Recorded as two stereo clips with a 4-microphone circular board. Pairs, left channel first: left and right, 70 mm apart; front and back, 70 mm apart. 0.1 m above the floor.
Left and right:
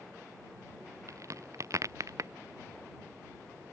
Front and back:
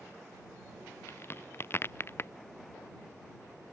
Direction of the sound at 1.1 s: 50° right.